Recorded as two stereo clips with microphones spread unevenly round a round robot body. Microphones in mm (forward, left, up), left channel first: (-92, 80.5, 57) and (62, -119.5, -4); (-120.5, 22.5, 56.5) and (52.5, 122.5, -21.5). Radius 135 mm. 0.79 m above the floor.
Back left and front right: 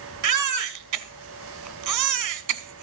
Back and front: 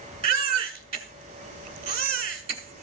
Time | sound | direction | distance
0.2 | a baby crying | 40° right | 1.2 m